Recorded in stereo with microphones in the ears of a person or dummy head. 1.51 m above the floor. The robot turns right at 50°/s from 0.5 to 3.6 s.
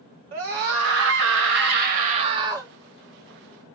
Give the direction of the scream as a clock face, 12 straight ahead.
4 o'clock.